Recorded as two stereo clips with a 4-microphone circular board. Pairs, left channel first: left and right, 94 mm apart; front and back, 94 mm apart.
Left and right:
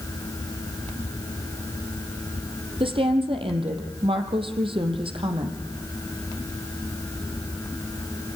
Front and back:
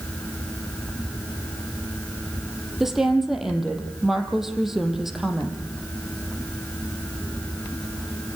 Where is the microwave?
I don't hear a microwave.